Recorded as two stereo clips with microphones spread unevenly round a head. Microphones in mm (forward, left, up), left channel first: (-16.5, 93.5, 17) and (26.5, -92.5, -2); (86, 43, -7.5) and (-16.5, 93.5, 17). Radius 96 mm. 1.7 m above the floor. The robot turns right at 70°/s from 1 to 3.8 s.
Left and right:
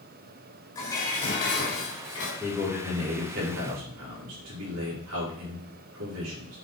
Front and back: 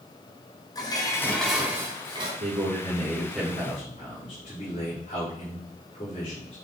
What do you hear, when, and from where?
0.8 s dishes clattering: 35° left, 4 m; by 2.3 s 125° left, 4 m
2.4 s a man speaking: 175° left, 5 m; by 6.6 s 90° right, 5 m